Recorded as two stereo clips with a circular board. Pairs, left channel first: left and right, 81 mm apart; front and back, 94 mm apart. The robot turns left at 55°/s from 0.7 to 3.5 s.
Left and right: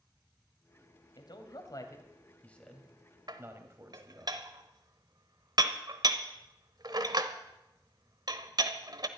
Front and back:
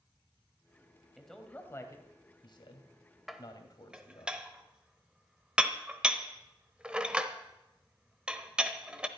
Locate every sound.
1.2 s a man speaking: 90° left, 2 m; by 4.3 s 35° right, 2 m
3.3 s dishes clattering: 90° right, 0.9 m; by 9.1 s 105° right, 0.9 m